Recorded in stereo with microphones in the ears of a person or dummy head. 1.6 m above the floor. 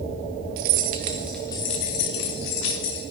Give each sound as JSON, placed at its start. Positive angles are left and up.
{"t": 0.6, "sound": "keys jangling", "side_deg": -60, "distance_m": 0.8}